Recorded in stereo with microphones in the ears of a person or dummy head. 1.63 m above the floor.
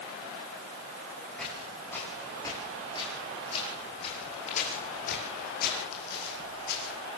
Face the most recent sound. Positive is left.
turn(degrees=60)  # may be behind; listen again after turning